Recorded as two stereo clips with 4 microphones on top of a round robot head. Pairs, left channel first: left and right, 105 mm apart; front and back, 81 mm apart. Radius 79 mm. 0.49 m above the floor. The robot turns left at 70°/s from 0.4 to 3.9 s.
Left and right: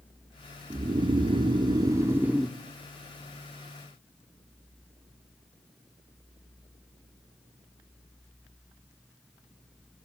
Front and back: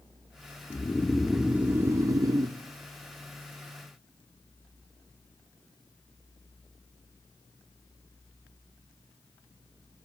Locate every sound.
0.7 s snoring: 50° right, 0.9 m; by 2.6 s straight behind, 0.9 m